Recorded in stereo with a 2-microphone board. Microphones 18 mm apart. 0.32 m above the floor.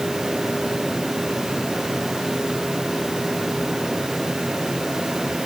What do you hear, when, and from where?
Only background noise.